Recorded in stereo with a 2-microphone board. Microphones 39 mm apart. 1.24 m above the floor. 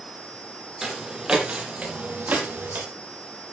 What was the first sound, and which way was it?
Footsteps, 10° right (ahead or behind).